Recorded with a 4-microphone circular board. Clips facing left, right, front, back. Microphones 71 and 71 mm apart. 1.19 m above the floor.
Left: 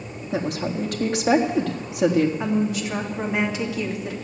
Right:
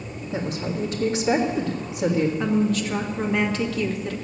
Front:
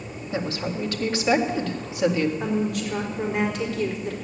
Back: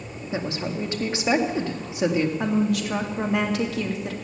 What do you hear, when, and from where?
0.3 s a woman speaking: 115° left, 1.8 m
2.4 s a woman speaking: 170° left, 2.5 m